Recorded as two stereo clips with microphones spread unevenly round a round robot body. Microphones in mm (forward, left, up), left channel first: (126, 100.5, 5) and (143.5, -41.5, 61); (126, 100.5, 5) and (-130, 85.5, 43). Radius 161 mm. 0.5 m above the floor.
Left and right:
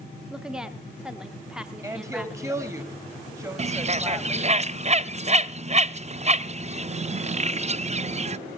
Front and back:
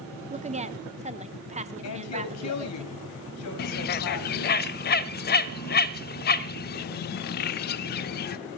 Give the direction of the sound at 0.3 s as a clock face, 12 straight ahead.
7 o'clock.